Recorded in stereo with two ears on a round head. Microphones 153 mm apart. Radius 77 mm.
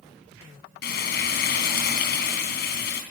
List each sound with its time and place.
0.8 s frying: 65° left (ahead or behind), 3.5 m